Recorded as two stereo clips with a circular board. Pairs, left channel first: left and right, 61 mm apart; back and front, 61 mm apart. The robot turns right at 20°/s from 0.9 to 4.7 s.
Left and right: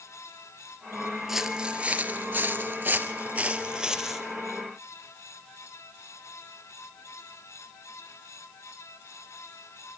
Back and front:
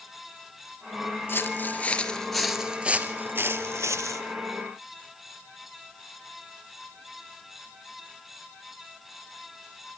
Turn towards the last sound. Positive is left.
turn(degrees=5)